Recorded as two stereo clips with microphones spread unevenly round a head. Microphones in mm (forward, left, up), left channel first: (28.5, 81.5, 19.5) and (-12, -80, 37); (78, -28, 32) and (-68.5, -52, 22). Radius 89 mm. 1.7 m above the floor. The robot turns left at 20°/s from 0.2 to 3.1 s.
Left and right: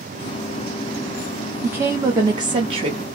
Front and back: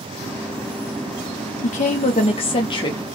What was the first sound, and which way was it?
A woman speaking, 25° right.